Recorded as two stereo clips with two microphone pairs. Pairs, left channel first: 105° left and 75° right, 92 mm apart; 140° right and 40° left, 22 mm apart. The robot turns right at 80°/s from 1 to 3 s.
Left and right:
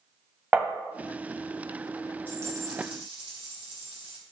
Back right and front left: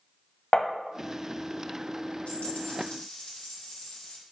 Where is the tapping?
140° right, 0.9 m.